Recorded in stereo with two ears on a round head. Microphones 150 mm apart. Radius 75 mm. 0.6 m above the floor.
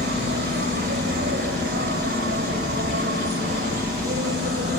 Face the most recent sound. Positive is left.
turn(degrees=-60)  # may be behind; listen again after turning